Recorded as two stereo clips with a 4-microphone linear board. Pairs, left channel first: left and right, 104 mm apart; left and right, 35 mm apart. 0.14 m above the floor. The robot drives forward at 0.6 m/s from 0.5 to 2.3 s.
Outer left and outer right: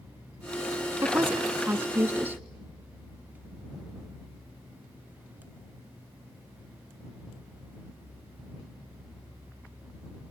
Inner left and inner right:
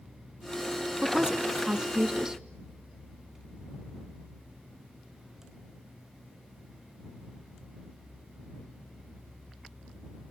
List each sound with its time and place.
1.0 s a woman speaking: 20° right (ahead or behind), 1.3 m